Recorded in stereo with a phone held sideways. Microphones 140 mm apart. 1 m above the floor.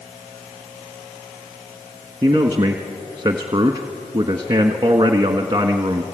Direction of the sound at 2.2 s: 30° right (ahead or behind).